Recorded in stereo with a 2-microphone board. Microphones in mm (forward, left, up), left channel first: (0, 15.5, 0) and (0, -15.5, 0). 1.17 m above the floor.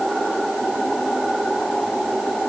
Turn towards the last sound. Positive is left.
No sound to turn to.